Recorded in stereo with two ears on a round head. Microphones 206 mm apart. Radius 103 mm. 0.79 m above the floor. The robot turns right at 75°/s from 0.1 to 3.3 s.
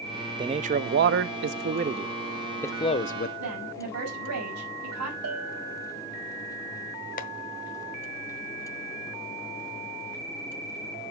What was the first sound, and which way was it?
A man speaking, 155° right.